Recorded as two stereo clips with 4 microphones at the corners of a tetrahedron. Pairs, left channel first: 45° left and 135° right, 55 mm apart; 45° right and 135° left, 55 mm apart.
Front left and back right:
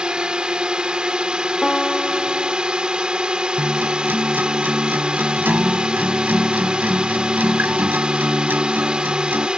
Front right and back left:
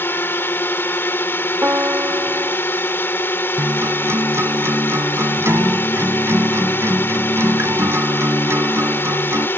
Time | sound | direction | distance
0.0 | a drone | 70° right | ?
1.6 | a piano | 125° left | ?
3.6 | a guitar | 175° left | ?